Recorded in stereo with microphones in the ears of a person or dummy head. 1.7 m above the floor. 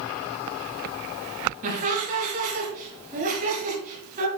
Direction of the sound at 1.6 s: 35° right (ahead or behind).